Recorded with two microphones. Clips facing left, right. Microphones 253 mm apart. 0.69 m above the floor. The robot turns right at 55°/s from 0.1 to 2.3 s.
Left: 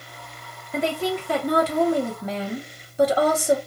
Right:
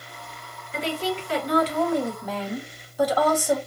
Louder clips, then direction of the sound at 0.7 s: Left 3 dB; 65° left.